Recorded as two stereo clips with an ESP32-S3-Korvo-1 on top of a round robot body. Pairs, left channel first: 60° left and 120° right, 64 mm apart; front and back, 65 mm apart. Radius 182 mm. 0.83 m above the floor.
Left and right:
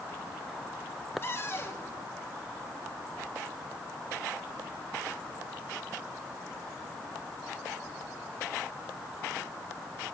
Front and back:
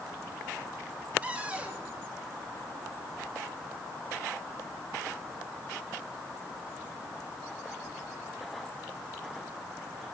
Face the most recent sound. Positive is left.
turn(degrees=110)